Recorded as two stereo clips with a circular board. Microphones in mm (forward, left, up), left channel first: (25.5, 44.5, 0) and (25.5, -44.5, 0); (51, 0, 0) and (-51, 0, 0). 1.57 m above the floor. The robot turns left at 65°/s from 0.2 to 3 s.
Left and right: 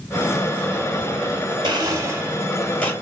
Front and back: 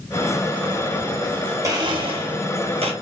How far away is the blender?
About 1.2 m.